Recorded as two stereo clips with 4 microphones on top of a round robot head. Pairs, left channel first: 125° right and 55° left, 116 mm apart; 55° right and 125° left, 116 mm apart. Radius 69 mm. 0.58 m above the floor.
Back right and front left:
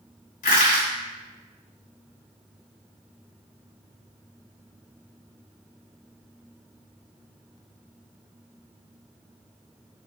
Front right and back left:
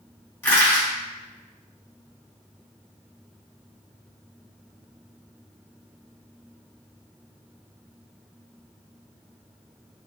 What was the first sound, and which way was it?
Crushing, 130° right.